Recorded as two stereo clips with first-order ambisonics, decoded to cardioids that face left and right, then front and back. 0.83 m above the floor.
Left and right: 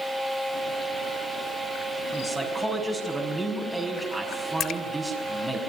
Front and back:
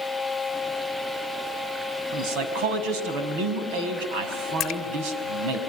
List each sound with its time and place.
2.1 s a man speaking: straight behind, 5 m
4.6 s a splash: 45° left, 1.2 m